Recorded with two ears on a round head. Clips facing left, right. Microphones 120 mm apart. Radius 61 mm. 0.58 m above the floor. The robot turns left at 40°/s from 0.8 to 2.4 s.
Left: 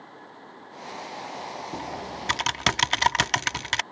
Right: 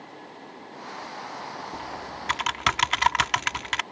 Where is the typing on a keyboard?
35° left (ahead or behind); by 3.8 s 40° left (ahead or behind).